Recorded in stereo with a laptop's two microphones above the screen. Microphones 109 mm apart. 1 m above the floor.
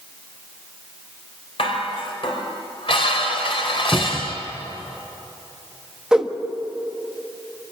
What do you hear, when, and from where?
1.6 s dishes clattering: 60° left (ahead or behind), 3.5 m
3.9 s a cupboard door: centre (ahead or behind), 0.8 m
6.1 s a whoosh: 5° right (ahead or behind), 1.4 m